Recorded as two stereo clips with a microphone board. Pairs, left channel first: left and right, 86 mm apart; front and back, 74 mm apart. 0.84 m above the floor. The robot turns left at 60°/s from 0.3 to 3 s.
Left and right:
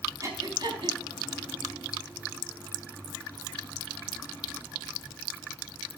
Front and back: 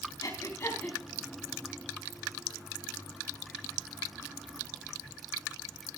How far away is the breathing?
About 4.5 m.